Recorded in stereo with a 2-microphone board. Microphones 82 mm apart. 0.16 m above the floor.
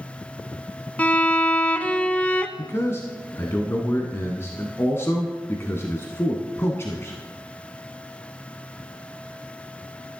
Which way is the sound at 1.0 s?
15° left (ahead or behind).